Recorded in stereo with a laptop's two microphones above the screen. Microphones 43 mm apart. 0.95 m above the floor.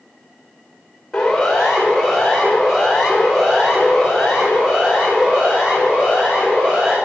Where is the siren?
10° left (ahead or behind), 2.5 m; by 7.0 s 10° right (ahead or behind), 5.5 m.